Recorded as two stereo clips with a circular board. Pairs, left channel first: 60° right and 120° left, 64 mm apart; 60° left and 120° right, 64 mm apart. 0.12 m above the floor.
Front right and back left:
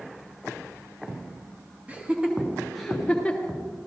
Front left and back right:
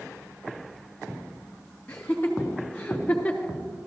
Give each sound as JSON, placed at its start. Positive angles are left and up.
{"t": 1.9, "sound": "laughter", "azimuth_deg": 95, "distance_m": 1.4}